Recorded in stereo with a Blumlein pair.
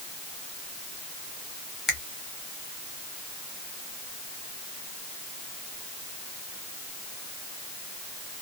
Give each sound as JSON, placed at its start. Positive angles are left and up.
{"t": 1.9, "sound": "a finger snap", "azimuth_deg": 20, "distance_m": 0.9}